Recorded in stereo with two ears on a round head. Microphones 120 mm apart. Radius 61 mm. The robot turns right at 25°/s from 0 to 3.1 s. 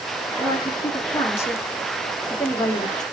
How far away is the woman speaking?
About 0.8 m.